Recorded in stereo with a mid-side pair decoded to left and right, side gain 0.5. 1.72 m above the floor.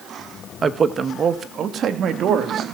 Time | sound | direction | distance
0.6 | a man speaking | 35° right | 1.9 m